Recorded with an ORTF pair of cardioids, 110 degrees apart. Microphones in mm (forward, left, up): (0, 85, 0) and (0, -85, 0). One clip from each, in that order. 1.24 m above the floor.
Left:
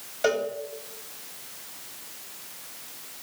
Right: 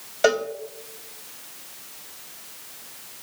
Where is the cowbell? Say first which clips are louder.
Right 4 dB; 35° right, 2.5 m.